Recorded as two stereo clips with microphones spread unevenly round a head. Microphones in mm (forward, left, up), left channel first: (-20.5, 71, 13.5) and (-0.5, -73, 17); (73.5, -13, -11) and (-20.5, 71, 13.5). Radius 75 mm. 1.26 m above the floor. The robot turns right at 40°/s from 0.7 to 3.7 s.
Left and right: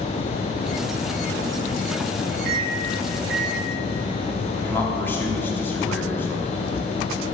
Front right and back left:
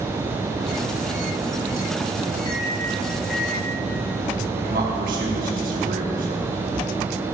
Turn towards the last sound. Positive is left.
turn(degrees=175)